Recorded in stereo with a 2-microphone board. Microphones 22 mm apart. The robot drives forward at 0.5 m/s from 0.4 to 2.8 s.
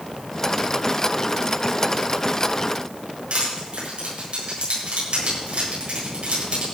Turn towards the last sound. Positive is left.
turn(degrees=-55)  # may be behind; listen again after turning